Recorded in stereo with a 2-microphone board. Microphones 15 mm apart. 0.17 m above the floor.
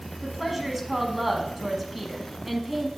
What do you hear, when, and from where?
0.2 s a woman speaking: 15° right (ahead or behind), 1.0 m